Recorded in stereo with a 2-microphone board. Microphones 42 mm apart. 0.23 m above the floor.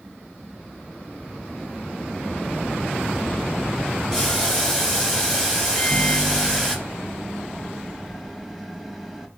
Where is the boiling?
10° right (ahead or behind), 3 m.